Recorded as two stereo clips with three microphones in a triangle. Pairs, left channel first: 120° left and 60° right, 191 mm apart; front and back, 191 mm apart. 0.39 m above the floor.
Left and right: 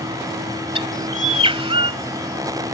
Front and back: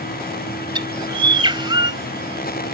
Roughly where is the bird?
Behind right.